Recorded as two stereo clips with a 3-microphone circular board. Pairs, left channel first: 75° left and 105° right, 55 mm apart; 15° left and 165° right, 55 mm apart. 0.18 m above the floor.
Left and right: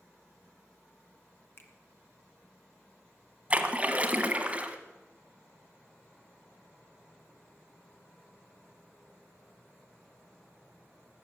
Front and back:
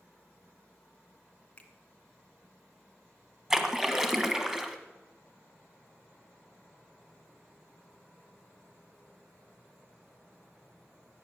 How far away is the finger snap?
About 1.9 m.